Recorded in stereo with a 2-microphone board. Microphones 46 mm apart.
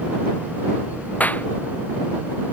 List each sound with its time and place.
1.2 s a clap: 35° left (ahead or behind)